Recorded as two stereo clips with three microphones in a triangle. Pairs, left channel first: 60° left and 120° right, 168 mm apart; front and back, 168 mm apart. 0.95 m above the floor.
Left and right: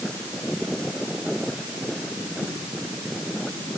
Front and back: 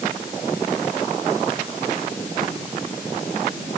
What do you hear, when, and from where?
Only background noise.